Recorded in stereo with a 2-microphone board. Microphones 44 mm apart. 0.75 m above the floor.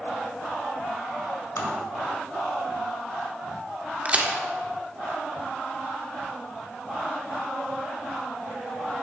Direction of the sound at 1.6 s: 80° left.